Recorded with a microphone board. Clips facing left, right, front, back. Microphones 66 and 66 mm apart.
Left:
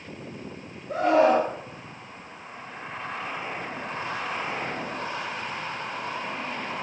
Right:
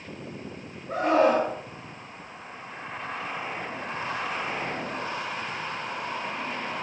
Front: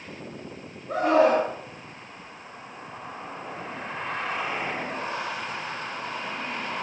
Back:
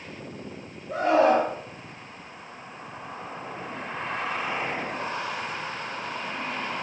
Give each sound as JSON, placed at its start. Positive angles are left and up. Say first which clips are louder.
{"t": 0.9, "sound": "a scream", "louder": "left 2 dB, even", "azimuth_deg": -40, "distance_m": 3.5}